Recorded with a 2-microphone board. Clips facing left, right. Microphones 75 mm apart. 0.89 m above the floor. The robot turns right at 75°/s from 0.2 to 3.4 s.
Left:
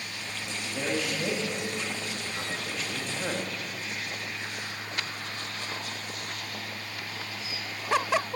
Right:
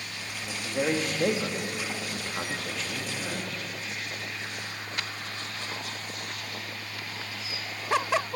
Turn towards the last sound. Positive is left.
turn(degrees=40)  # may be behind; listen again after turning